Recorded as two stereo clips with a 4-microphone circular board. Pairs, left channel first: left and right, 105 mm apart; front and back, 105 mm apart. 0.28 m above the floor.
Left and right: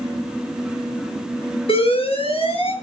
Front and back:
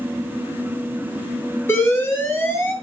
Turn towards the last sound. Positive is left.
turn(degrees=65)